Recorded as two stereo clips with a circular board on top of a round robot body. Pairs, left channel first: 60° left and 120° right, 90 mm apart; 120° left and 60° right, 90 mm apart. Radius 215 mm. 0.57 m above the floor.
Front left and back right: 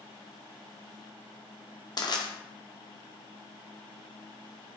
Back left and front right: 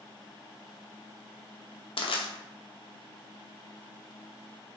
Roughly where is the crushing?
Left.